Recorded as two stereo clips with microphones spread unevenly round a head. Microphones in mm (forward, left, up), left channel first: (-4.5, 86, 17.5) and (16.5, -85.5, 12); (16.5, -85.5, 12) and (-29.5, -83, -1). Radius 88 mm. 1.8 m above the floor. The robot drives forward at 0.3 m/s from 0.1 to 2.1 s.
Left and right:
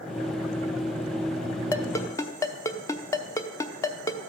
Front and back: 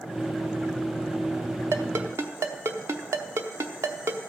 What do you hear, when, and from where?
1.7 s a ringtone: 155° left, 0.8 m; by 4.2 s 160° left, 0.8 m